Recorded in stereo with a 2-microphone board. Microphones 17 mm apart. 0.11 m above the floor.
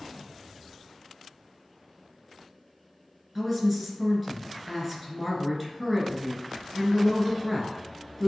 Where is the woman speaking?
5° right (ahead or behind), 1.4 m.